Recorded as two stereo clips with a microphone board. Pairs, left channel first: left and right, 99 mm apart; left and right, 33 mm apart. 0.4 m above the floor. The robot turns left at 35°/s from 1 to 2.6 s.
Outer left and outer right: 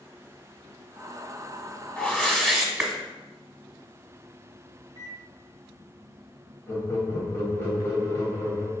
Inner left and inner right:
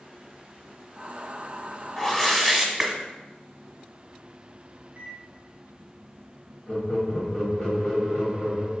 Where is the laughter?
25° left (ahead or behind), 1.7 m.